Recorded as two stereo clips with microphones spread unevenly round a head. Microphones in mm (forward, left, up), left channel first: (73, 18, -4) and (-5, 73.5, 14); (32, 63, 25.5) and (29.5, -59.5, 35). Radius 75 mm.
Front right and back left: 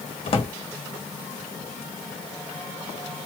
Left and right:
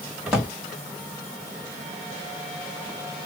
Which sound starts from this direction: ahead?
A drawer, at 0.3 s.